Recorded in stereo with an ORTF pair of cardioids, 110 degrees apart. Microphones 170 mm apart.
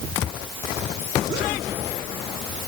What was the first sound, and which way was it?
Only background noise.